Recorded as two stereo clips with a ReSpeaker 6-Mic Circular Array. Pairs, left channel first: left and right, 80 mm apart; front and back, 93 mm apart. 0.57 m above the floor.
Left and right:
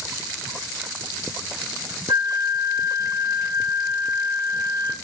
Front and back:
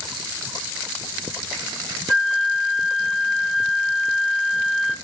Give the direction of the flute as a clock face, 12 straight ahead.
3 o'clock.